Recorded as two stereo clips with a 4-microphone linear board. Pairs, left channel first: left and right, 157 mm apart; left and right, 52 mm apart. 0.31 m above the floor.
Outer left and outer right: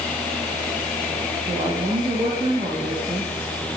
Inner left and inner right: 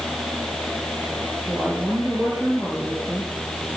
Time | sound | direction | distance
1.5 | a woman speaking | 30° right (ahead or behind) | 7 m